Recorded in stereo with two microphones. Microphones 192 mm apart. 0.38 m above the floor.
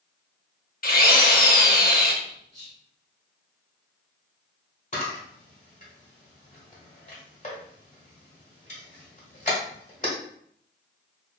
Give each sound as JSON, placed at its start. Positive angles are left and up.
{"t": 0.8, "sound": "a drill", "side_deg": 50, "distance_m": 0.5}
{"t": 2.2, "sound": "whispering", "side_deg": -40, "distance_m": 0.9}
{"t": 4.9, "sound": "a camera shutter", "side_deg": 40, "distance_m": 1.1}